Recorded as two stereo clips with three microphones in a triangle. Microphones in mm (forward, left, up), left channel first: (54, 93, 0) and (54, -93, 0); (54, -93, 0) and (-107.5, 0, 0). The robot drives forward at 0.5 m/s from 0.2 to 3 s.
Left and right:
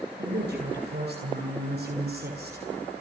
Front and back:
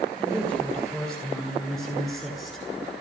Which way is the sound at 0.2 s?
115° right.